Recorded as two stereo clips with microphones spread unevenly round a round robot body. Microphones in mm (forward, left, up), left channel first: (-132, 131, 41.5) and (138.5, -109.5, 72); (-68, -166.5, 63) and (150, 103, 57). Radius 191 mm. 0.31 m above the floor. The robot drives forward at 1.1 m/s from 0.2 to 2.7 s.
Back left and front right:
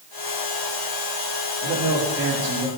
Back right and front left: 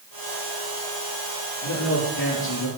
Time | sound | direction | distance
1.6 | a man speaking | 95° right | 8 m